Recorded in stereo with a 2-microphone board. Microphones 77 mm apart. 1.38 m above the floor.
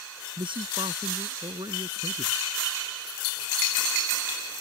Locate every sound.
0.4 s a man speaking: 75° right (ahead or behind)